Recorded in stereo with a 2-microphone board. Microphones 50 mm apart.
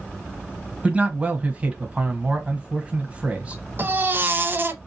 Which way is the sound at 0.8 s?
25° right (ahead or behind).